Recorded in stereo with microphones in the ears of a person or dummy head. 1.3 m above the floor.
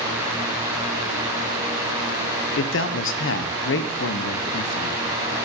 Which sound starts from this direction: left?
A man speaking, at 2.6 s.